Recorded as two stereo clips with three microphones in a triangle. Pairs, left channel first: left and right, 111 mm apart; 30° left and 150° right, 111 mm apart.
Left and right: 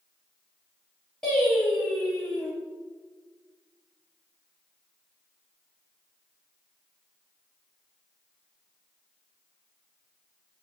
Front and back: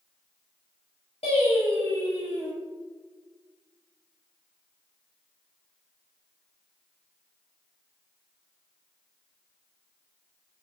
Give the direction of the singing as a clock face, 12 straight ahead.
12 o'clock.